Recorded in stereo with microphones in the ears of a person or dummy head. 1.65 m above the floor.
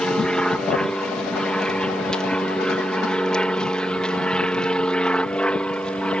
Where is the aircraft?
Centre (ahead or behind); by 6.2 s 5° left (ahead or behind).